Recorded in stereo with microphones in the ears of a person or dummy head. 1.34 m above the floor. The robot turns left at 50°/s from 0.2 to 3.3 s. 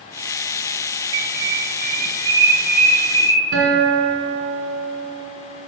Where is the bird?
95° right, 1.0 m; by 3.4 s 155° left, 1.0 m.